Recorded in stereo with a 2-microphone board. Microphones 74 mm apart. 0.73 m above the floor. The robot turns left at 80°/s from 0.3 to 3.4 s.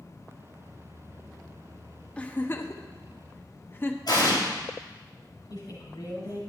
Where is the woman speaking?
60° left (ahead or behind), 5 m.